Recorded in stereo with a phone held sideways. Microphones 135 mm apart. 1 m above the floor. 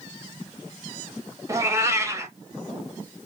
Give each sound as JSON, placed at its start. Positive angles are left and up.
{"t": 1.5, "sound": "a cat meowing", "side_deg": -25, "distance_m": 0.8}